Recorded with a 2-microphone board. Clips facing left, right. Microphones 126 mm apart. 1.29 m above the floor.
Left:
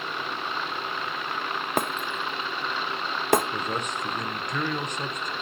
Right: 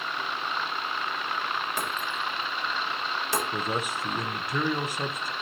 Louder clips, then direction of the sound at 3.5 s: Even; 5° right (ahead or behind).